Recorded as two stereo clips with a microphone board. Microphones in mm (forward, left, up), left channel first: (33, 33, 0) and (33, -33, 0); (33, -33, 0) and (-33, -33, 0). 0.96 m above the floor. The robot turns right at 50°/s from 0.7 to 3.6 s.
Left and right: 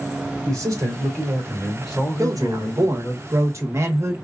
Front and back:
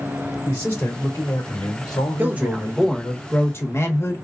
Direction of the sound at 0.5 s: 55° right.